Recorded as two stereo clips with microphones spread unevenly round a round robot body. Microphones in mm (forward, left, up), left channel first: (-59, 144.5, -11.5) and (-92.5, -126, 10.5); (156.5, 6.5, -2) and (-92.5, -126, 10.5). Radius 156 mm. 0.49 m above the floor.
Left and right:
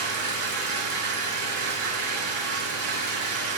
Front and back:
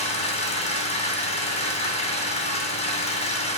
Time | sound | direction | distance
0.0 | an engine running | 40° right | 2 m